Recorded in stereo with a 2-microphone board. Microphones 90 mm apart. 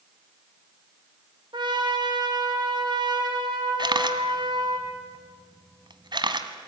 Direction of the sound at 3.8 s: 55° right (ahead or behind).